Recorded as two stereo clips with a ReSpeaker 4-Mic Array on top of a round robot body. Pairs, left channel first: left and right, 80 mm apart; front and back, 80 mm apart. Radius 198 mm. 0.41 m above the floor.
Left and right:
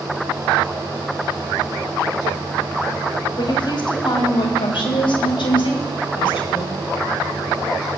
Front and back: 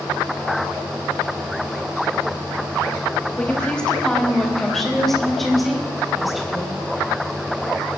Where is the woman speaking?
75° left, 2 m; by 6.8 s 95° left, 5 m.